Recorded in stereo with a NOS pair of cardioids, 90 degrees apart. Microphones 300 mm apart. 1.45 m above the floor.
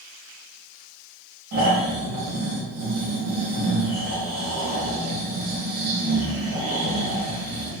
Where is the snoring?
65° right, 2.0 m.